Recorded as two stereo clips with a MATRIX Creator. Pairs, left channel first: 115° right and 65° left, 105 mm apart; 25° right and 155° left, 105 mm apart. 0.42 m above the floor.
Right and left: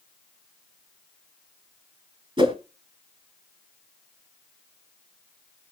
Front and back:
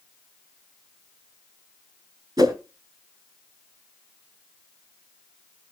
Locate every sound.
2.4 s a whoosh: 105° left, 1.9 m